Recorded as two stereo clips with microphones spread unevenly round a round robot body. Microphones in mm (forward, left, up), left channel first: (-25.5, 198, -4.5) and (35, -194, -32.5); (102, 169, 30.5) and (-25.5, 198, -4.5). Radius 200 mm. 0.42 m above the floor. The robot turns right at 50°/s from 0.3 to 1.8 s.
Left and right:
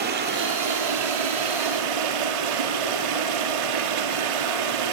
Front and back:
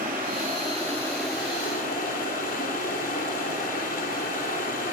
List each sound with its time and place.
0.0 s running water: 150° right, 3 m; by 5.0 s 75° right, 3 m